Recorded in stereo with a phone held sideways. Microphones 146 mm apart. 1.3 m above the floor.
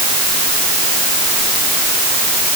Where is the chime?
No chime in this recording.